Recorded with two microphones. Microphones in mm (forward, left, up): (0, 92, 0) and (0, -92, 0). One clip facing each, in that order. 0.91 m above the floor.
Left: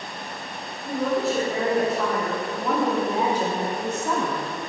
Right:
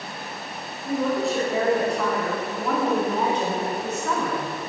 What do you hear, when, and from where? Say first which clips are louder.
0.8 s a woman speaking: even; centre (ahead or behind), 3.5 m; by 4.5 s 20° left (ahead or behind), 1.2 m